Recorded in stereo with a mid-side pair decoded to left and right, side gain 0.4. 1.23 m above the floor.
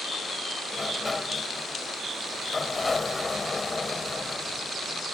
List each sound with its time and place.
0.7 s a sliding door: 25° left